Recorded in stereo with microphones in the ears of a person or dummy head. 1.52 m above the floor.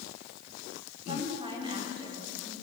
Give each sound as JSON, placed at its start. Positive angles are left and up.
{"t": 1.1, "sound": "a woman speaking", "side_deg": -25, "distance_m": 5.0}